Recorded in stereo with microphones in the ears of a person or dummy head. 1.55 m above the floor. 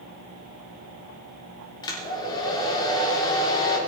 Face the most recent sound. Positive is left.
turn(degrees=30)  # may be behind; listen again after turning